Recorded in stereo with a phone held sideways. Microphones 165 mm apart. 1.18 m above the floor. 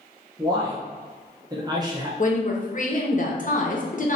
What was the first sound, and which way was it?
A man speaking, 25° right (ahead or behind).